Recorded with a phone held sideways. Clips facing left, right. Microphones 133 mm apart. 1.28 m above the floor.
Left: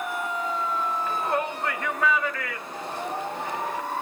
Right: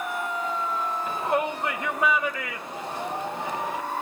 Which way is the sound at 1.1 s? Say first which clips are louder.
Right 4 dB; 20° right (ahead or behind).